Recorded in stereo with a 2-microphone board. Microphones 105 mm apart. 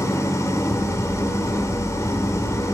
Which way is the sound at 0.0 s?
30° left (ahead or behind).